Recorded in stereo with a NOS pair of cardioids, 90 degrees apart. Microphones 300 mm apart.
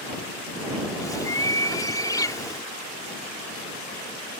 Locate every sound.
1.0 s a bird: 10° left